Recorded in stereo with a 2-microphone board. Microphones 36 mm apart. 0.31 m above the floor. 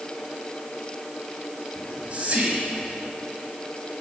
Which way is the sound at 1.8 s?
40° right (ahead or behind).